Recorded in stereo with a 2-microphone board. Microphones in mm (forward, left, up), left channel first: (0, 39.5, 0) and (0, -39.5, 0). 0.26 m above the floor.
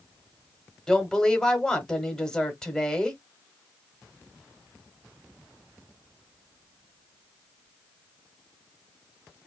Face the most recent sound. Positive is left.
turn(degrees=10)  # may be behind; listen again after turning